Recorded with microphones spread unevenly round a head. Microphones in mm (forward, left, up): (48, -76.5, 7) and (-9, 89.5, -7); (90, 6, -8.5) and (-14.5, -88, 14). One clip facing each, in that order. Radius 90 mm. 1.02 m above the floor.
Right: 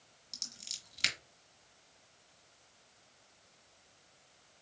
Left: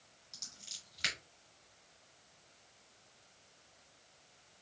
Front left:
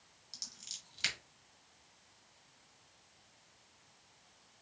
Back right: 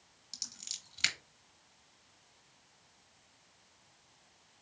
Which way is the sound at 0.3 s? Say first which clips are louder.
Right 4 dB, back right 3 dB; 110° right.